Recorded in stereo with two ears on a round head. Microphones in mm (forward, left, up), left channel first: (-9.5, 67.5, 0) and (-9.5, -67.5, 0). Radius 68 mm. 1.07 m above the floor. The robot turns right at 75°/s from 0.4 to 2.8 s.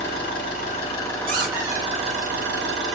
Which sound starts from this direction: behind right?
A squeak, at 1.3 s.